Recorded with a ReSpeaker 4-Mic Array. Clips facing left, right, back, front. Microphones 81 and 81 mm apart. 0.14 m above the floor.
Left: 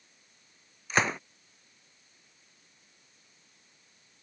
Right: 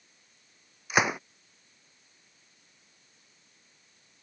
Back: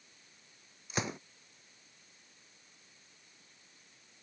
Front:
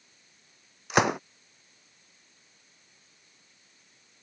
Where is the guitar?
I don't hear a guitar.